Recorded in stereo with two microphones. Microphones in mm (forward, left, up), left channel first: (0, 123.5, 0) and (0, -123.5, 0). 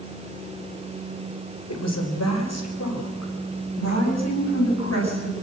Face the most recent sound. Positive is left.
turn(degrees=80)